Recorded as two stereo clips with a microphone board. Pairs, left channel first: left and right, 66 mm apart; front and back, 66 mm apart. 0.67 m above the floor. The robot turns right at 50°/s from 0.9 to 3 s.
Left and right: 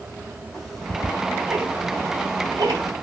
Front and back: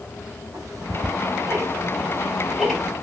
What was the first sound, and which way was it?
Ticking, straight behind.